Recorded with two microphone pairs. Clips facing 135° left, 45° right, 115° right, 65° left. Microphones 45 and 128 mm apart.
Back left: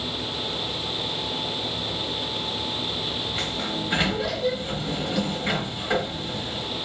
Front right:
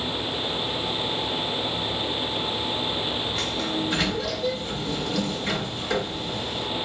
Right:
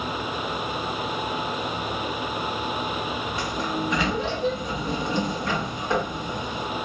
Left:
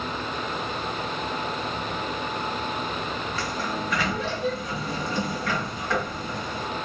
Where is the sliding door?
170° right, 0.7 m.